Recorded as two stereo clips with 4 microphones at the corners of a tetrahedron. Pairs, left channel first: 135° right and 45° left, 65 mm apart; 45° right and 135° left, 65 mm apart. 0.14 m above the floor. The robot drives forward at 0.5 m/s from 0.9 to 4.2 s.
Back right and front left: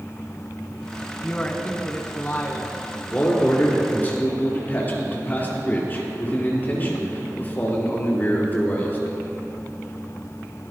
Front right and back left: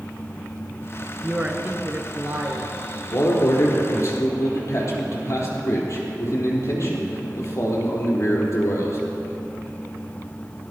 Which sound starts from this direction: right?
A man speaking, at 3.1 s.